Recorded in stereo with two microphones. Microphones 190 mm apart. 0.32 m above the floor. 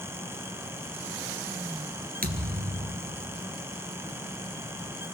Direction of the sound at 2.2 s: 50° right (ahead or behind).